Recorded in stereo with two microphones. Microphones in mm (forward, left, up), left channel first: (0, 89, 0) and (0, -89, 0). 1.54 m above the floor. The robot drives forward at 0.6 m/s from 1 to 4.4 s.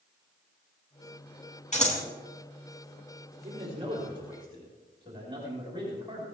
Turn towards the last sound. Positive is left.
turn(degrees=-25)  # may be behind; listen again after turning